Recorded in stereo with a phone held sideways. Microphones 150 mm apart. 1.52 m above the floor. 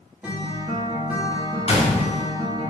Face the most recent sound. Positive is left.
turn(degrees=45)  # may be behind; listen again after turning